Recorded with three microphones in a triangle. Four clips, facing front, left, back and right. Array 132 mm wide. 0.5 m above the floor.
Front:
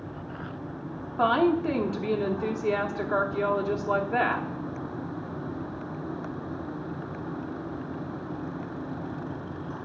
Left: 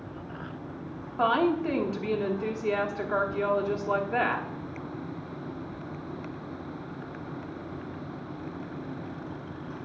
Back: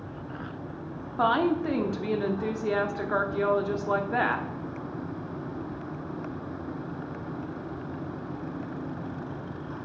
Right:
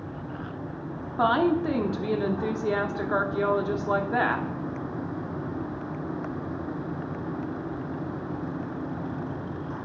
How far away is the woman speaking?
About 1.0 m.